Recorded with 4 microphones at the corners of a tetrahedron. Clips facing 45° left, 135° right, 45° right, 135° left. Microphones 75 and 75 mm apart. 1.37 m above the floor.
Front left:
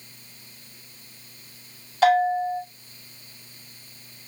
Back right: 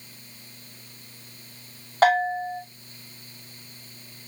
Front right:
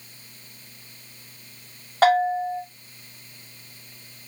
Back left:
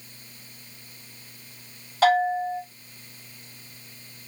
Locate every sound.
2.0 s a bell: 90° right, 4 m